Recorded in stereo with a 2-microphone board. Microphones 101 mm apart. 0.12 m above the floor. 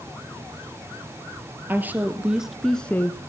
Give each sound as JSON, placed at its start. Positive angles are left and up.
{"t": 1.7, "sound": "a woman speaking", "side_deg": -20, "distance_m": 2.0}